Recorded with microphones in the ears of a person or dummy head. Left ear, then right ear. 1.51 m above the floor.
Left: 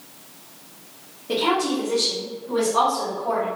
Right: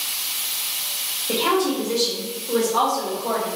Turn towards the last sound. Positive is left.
turn(degrees=-65)  # may be behind; listen again after turning